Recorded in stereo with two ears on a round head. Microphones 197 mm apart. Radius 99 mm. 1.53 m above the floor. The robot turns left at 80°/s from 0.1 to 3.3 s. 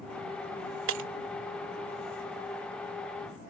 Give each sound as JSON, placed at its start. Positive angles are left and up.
{"t": 0.9, "sound": "breaking glass", "side_deg": -70}